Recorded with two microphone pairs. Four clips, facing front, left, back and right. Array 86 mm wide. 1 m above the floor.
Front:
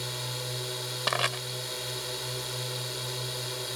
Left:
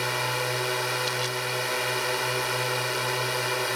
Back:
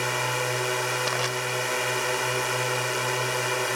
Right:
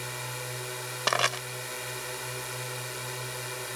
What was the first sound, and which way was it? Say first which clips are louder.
A drone: left 10 dB, back 11 dB; 140° left.